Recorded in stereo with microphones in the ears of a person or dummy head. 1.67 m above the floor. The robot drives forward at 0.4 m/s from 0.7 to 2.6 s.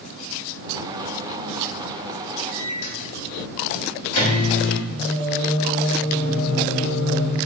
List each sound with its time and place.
2.5 s a microwave: 65° left (ahead or behind), 1.4 m
4.9 s singing: 55° left (ahead or behind), 1.8 m